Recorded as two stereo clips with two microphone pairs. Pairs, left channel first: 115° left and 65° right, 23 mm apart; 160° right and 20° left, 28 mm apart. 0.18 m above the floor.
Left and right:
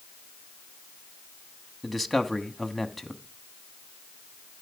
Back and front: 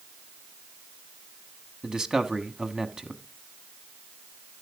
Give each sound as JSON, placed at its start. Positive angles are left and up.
{"t": 1.8, "sound": "a man speaking", "azimuth_deg": 15, "distance_m": 1.0}